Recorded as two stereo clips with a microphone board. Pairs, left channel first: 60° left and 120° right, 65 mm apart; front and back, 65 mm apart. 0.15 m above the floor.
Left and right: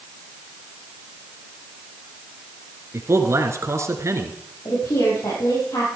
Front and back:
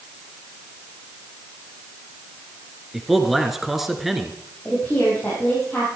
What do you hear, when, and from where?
2.9 s a man speaking: 95° right, 1.8 m
4.7 s a woman speaking: 70° left, 5.5 m